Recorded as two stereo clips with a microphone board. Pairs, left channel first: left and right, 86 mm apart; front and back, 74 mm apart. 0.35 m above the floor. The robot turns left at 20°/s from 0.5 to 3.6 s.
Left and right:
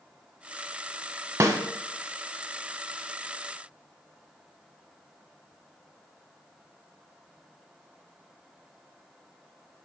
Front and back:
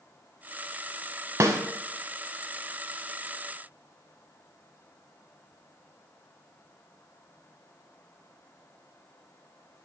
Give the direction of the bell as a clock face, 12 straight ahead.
I don't hear a bell.